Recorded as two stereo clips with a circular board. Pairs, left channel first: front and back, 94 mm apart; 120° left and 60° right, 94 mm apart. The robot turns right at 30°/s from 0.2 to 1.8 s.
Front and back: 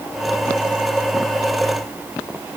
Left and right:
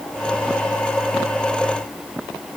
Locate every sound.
Only background noise.